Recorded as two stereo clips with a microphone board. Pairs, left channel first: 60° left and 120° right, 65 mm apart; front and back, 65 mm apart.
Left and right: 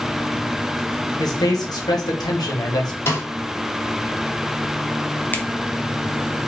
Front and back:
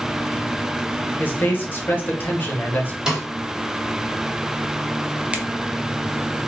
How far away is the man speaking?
About 1.3 m.